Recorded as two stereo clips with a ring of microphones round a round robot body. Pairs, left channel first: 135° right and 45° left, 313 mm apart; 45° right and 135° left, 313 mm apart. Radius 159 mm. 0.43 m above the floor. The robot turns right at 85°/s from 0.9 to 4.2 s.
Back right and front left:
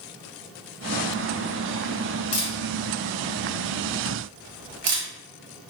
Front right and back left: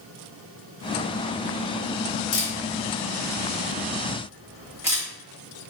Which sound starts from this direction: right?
A camera shutter, at 2.3 s.